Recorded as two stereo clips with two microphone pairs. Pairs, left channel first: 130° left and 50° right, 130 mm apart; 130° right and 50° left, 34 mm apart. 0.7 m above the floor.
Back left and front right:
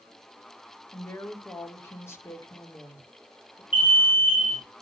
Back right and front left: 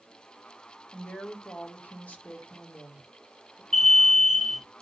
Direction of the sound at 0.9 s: 160° right.